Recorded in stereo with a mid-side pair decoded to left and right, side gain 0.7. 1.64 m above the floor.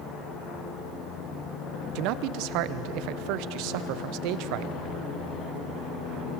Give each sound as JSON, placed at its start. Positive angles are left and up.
{"t": 1.9, "sound": "a man speaking", "azimuth_deg": -65, "distance_m": 0.9}